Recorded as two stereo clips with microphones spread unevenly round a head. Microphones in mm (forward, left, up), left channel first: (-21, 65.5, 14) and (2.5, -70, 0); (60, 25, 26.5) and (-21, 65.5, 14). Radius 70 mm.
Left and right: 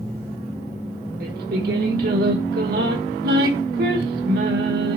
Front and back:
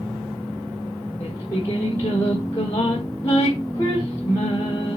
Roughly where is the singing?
Right.